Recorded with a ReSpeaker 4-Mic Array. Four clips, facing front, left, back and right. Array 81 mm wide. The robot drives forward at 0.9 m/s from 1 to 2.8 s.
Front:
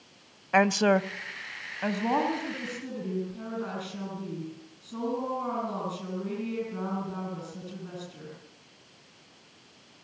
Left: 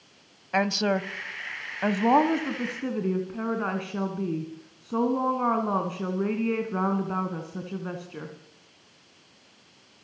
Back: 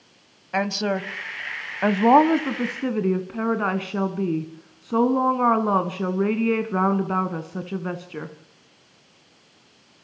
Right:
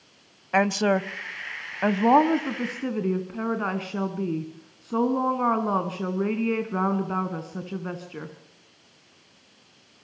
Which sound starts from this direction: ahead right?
A woman speaking, at 0.5 s.